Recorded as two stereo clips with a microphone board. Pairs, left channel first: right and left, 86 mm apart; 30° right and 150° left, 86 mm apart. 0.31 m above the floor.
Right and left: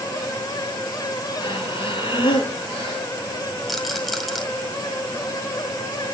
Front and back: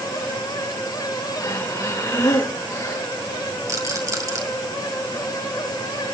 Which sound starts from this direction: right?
Breathing, at 1.4 s.